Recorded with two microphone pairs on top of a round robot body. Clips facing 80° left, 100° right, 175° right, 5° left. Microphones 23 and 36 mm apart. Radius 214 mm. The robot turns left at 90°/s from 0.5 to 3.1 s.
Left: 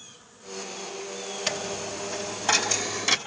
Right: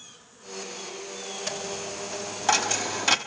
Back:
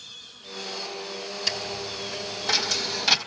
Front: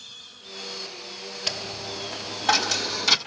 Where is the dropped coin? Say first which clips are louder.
Left 3 dB, back 1 dB; 55° left, 0.7 m; by 3.2 s 90° right, 0.7 m.